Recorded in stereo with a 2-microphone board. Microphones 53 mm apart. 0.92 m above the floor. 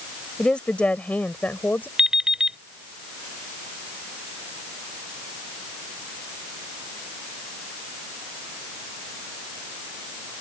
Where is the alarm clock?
15° right (ahead or behind).